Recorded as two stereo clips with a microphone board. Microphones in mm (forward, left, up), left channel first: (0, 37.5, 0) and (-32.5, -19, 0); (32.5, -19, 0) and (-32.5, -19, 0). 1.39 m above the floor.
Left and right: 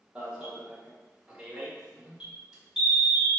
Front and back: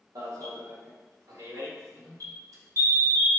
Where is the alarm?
165° left, 1.9 m.